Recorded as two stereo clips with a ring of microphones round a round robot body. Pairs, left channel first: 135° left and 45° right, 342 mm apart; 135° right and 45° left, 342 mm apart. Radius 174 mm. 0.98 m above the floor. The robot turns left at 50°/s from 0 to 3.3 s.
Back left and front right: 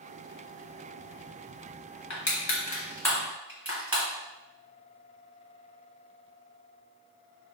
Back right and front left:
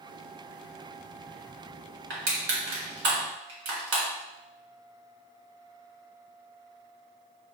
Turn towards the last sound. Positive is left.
turn(degrees=40)